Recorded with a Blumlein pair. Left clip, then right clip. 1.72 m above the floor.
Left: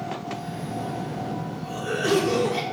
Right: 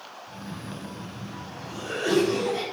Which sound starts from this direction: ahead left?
A cough, at 0.3 s.